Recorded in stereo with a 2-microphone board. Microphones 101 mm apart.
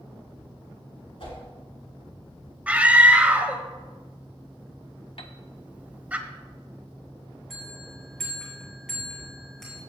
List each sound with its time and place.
1.2 s a whoosh: 65° left (ahead or behind), 3.5 m
2.7 s a scream: 15° right (ahead or behind), 0.9 m
5.2 s a piano: 60° left (ahead or behind), 0.6 m
7.5 s a bell: 5° left (ahead or behind), 4 m